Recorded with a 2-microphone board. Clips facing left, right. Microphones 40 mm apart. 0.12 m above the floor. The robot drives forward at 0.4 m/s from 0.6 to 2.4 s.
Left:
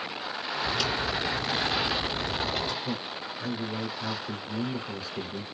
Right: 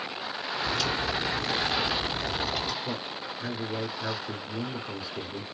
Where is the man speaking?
5° right (ahead or behind), 1.1 m.